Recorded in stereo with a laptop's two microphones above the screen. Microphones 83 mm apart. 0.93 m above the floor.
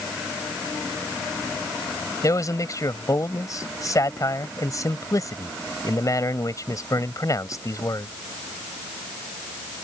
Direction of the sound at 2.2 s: 45° left (ahead or behind).